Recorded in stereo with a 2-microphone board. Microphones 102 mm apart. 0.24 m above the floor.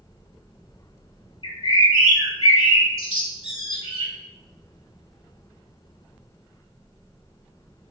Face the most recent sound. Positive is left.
turn(degrees=60)  # may be behind; listen again after turning